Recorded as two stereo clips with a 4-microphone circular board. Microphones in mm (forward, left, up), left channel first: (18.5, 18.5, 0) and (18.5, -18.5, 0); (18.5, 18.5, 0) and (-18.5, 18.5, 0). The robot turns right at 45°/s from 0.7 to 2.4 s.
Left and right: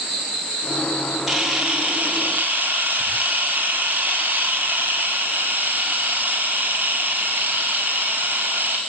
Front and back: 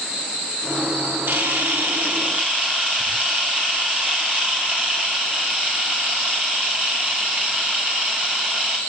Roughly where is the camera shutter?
Behind.